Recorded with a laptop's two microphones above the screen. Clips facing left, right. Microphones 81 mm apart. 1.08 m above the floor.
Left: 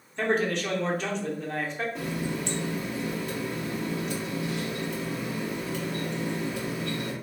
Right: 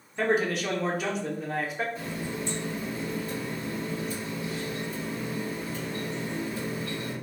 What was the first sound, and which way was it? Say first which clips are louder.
A man speaking: even; 5° right (ahead or behind).